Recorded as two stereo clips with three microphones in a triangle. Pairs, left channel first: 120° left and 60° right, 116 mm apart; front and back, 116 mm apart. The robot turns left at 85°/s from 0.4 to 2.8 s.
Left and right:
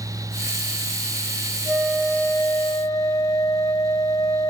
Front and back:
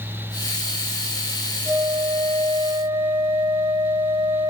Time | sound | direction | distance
1.6 | a flute | 140° right | 3 m